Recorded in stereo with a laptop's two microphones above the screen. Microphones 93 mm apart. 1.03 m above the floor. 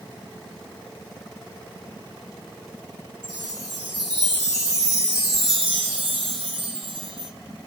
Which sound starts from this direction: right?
A chime, at 3.2 s.